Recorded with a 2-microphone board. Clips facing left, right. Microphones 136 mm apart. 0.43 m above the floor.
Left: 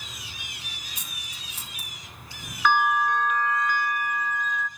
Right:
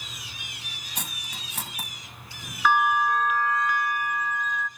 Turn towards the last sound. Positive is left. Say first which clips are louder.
# even
turn(degrees=-5)  # may be behind; listen again after turning